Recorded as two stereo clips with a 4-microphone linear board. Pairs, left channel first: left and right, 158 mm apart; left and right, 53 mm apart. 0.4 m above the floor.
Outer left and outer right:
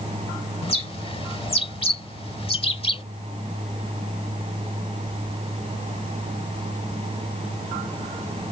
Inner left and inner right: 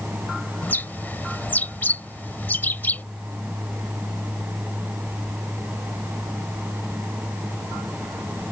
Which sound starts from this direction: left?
A bird, at 0.6 s.